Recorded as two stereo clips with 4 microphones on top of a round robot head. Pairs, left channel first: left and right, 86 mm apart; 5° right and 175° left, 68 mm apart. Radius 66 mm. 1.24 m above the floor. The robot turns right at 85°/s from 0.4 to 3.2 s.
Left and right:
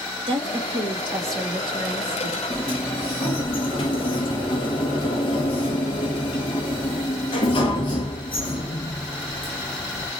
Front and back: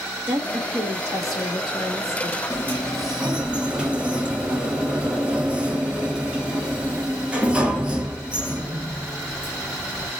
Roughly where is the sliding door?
Ahead left.